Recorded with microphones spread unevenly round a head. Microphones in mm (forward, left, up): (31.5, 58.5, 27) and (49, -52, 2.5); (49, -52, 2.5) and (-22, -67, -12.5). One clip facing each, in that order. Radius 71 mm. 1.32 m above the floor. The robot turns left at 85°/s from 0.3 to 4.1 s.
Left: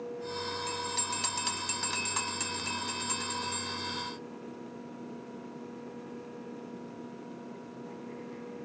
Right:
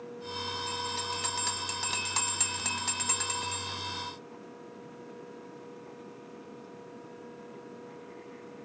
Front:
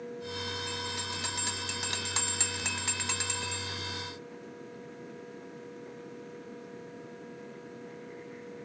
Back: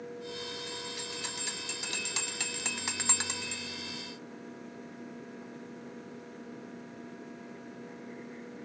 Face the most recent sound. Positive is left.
turn(degrees=170)